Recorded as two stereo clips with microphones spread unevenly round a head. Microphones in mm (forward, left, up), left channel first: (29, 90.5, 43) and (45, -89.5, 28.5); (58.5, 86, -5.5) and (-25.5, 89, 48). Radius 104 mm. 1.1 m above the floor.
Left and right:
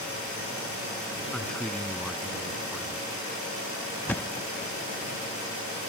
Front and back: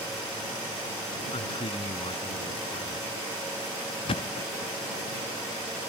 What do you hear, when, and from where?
1.3 s a man speaking: 5° left
4.1 s a thud: 30° left